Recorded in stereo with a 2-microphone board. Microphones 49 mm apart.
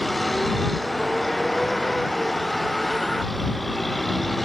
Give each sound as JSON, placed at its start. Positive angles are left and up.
{"t": 0.0, "sound": "a vehicle", "side_deg": 0}